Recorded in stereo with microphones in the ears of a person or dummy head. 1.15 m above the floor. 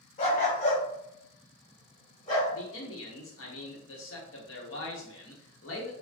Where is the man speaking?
65° left (ahead or behind), 1.0 m.